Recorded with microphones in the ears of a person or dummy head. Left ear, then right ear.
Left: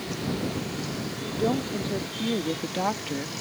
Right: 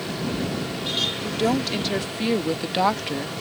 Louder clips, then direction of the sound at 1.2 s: Right 4 dB; 85° right.